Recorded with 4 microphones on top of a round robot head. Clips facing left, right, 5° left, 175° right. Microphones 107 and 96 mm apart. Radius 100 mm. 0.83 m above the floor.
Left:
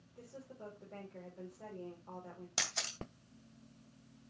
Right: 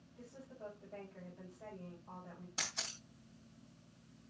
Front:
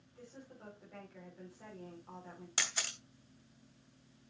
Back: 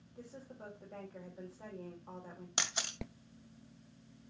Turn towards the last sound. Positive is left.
turn(degrees=115)